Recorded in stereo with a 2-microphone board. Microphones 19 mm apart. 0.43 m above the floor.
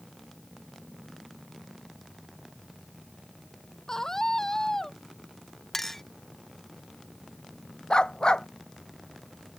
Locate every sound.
3.9 s a scream: 25° left (ahead or behind)
5.7 s a clink: 20° left (ahead or behind)
7.9 s a dog barking: 45° left (ahead or behind)